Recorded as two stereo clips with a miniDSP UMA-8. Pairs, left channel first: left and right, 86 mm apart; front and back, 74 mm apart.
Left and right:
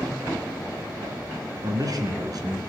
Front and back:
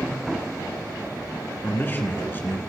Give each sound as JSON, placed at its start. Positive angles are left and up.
{"t": 1.6, "sound": "a man speaking", "azimuth_deg": -55, "distance_m": 2.5}